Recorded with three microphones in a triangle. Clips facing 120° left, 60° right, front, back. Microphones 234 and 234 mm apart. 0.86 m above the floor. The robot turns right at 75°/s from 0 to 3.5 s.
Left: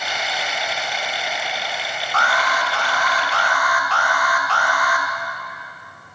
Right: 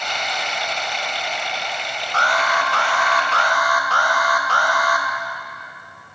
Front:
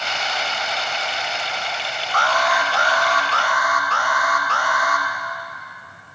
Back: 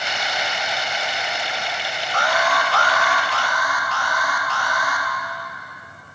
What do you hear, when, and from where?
2.1 s an alarm: 120° right, 3 m; by 5.1 s 15° right, 3 m